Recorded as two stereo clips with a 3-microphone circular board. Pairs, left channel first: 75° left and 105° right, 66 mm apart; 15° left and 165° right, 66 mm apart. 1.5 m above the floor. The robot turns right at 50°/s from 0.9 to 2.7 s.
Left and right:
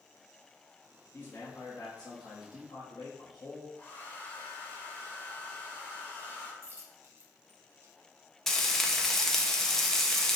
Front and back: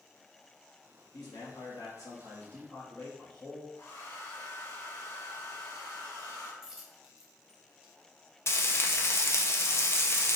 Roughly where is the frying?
Ahead.